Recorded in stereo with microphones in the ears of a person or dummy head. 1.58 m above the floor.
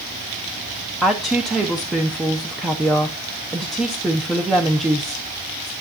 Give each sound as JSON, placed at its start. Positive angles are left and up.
{"t": 1.0, "sound": "a woman speaking", "side_deg": 0, "distance_m": 0.7}